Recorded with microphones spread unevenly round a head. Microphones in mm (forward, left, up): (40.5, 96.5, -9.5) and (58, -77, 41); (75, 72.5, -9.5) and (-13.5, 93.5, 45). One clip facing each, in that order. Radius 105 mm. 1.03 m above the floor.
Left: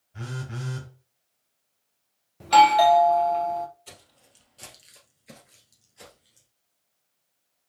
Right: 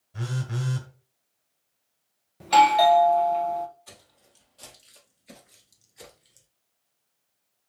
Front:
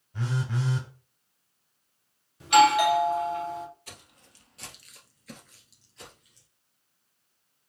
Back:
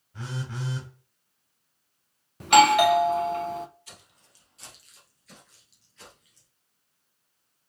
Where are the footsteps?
30° left, 1.7 m; by 6.5 s 115° right, 1.3 m.